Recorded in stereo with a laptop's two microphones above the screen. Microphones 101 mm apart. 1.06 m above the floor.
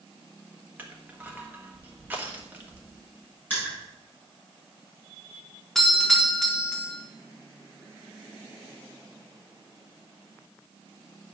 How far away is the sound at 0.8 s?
About 1.1 m.